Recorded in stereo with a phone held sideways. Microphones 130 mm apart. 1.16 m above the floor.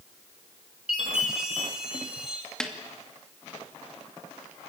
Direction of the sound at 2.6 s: 5° left (ahead or behind).